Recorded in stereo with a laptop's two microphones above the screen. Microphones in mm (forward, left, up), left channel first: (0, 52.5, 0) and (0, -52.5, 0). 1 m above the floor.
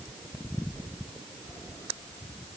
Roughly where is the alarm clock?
No alarm clock in this recording.